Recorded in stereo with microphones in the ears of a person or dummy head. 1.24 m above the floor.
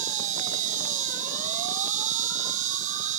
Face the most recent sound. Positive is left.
turn(degrees=-45)  # may be behind; listen again after turning